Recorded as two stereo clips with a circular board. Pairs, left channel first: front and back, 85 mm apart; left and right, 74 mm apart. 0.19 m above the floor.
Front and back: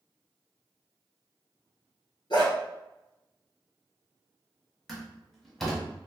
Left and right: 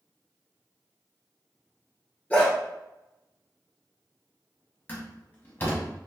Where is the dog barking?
20° left, 1.1 m.